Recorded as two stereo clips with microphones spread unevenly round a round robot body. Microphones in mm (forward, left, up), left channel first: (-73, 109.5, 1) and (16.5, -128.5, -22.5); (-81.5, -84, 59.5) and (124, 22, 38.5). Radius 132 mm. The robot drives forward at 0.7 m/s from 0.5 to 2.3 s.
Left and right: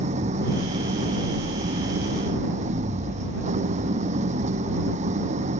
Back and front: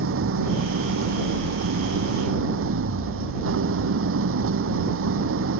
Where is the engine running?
5° right.